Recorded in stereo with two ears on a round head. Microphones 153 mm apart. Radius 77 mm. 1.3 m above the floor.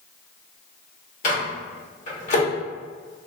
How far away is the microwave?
About 1.1 m.